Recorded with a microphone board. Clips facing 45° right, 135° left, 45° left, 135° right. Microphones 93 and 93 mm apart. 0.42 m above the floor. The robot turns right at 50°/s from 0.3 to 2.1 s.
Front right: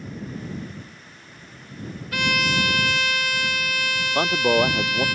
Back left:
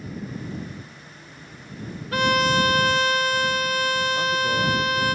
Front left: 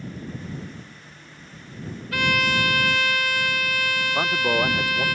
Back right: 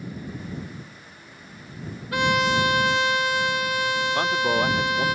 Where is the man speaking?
40° right.